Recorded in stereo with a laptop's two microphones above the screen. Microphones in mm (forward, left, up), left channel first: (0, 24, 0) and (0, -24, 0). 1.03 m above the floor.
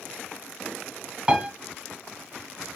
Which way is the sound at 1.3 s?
15° right (ahead or behind).